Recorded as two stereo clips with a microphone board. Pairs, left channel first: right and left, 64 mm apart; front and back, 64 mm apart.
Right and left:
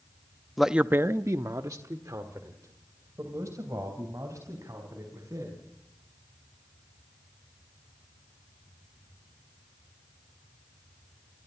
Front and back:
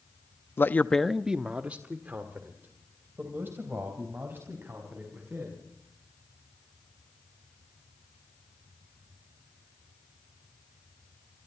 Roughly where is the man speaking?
Ahead.